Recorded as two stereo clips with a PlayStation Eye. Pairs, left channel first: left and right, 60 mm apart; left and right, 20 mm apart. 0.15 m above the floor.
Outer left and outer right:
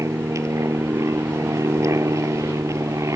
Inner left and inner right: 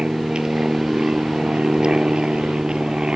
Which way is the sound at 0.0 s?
60° right (ahead or behind).